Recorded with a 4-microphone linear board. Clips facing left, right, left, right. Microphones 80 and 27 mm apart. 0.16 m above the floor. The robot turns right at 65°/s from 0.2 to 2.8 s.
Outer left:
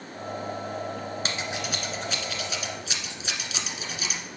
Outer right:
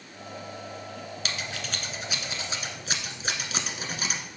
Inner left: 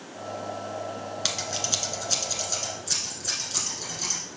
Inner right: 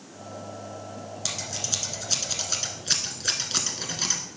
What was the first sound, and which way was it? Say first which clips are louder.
Scissors: outer left 1 dB, inner left 3 dB; 35° left (ahead or behind).